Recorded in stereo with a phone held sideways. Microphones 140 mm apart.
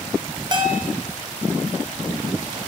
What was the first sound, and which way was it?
A bell, 35° right (ahead or behind).